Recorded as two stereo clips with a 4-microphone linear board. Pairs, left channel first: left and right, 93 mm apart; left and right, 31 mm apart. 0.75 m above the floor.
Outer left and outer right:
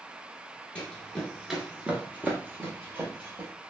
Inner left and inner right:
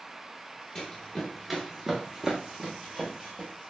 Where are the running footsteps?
10° left (ahead or behind), 0.8 m; by 3.5 s 25° right (ahead or behind), 1.3 m.